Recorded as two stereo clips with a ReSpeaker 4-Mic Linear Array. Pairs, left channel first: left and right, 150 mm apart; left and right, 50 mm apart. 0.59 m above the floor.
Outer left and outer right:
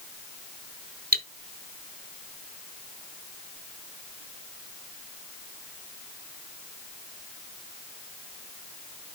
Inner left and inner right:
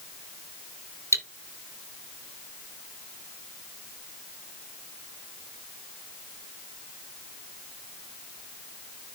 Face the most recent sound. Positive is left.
turn(degrees=-80)